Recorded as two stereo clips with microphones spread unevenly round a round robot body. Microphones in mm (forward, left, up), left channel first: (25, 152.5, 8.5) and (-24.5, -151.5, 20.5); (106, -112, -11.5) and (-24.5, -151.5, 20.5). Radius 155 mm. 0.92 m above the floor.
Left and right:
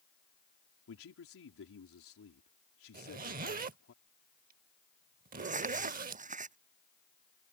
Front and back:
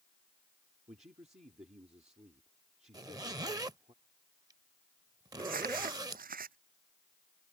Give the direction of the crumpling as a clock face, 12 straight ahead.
6 o'clock.